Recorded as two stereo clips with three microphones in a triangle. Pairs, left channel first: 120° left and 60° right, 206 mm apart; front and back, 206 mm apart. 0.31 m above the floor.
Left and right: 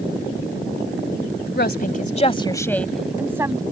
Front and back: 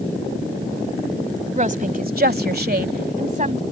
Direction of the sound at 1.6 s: 135° left.